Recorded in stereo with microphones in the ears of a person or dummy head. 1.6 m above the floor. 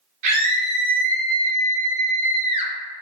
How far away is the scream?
About 1.7 m.